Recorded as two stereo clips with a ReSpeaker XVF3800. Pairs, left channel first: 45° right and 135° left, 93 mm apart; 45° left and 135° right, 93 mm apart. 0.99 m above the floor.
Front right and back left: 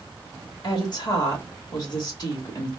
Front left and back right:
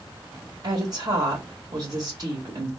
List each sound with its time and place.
0.6 s a woman speaking: 90° right, 2 m